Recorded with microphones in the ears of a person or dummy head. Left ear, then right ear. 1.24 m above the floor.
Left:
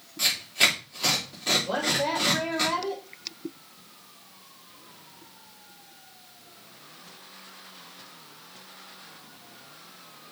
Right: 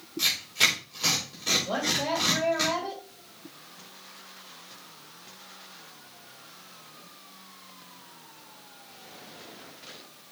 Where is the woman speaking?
5° left (ahead or behind), 2.5 m.